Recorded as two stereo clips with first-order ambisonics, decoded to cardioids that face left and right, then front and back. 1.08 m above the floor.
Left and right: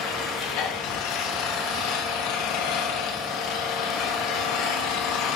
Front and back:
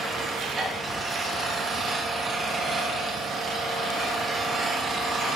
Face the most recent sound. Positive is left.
turn(degrees=115)